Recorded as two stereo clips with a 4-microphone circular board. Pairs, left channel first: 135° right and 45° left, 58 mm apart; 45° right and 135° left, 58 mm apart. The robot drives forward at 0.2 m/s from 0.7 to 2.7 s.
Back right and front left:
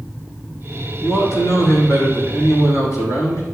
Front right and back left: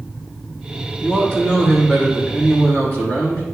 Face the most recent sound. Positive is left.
turn(degrees=-105)